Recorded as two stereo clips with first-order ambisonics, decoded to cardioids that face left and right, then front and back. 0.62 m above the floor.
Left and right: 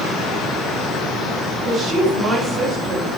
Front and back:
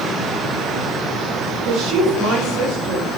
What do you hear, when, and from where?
1.6 s a woman speaking: 160° right, 2.5 m